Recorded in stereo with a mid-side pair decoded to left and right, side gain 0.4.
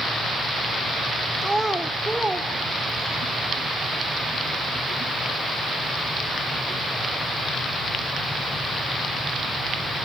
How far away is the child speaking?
About 2 m.